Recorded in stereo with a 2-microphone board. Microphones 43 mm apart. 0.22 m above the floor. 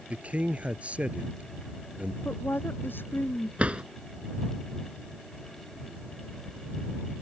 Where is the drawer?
30° right (ahead or behind).